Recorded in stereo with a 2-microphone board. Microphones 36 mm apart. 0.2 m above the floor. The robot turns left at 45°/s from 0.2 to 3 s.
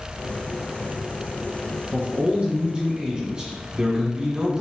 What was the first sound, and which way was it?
A man speaking, 90° right.